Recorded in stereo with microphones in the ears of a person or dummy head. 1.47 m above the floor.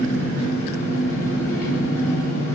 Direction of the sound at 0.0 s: 50° left (ahead or behind).